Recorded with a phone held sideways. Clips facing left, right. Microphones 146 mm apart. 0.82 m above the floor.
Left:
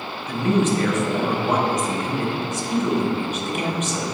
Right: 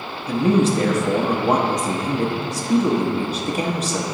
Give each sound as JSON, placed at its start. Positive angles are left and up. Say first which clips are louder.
{"t": 0.3, "sound": "a man speaking", "louder": "right 3 dB", "side_deg": -35, "distance_m": 0.8}